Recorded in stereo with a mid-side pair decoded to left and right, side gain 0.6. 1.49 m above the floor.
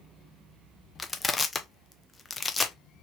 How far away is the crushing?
About 0.7 m.